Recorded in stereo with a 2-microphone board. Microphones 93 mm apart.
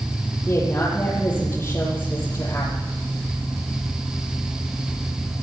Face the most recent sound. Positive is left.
turn(degrees=20)  # may be behind; listen again after turning